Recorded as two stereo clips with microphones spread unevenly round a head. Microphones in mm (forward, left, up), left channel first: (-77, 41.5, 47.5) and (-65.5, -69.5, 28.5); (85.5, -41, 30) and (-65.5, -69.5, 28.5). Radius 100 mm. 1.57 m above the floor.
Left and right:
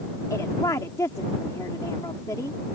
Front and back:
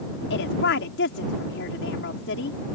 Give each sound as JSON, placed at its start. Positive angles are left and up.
{"t": 0.3, "sound": "a woman speaking", "azimuth_deg": 25}